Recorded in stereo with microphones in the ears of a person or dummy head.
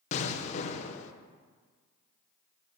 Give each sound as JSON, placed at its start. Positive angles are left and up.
{"t": 0.1, "sound": "an explosion", "side_deg": 40, "distance_m": 0.9}